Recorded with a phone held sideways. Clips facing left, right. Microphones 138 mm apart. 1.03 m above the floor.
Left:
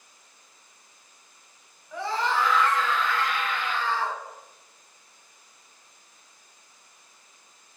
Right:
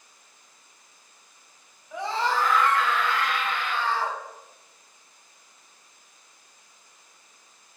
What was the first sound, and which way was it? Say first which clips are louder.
A scream: right 1 dB; 10° right (ahead or behind).